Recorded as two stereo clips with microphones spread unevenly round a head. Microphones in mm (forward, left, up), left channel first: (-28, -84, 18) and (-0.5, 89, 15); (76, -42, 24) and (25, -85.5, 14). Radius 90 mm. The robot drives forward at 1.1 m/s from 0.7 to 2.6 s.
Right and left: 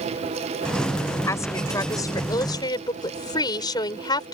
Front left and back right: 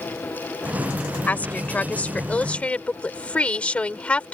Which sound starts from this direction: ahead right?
A woman speaking, at 1.3 s.